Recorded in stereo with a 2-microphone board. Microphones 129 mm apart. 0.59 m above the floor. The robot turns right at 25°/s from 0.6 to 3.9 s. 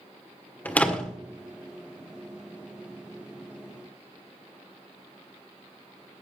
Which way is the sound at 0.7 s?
15° left (ahead or behind).